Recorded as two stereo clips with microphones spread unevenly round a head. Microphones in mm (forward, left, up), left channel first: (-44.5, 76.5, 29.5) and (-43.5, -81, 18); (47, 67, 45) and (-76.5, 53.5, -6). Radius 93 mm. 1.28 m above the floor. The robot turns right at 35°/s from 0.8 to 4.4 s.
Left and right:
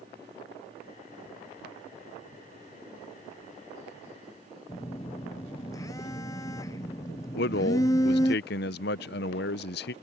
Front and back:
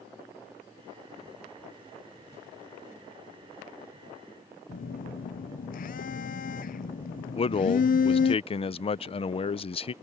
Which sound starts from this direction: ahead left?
A man speaking, at 7.3 s.